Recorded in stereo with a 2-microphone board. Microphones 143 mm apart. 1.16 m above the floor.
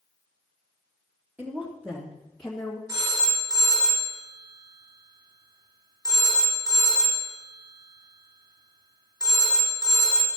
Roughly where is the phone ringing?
Right.